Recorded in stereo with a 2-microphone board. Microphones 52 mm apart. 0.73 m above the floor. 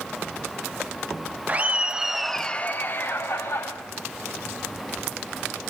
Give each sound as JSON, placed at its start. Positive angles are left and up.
{"t": 1.5, "sound": "laughter", "side_deg": -30, "distance_m": 1.1}